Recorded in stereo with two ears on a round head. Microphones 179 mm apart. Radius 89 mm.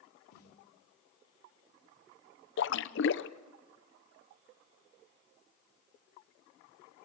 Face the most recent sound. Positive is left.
turn(degrees=65)  # may be behind; listen again after turning